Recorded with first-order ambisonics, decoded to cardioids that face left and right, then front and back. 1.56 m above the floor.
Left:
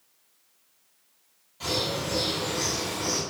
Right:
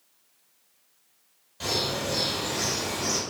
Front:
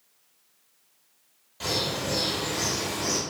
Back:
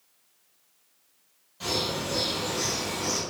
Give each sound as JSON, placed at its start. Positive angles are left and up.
{"t": 1.6, "sound": "a bird", "azimuth_deg": -45, "distance_m": 1.5}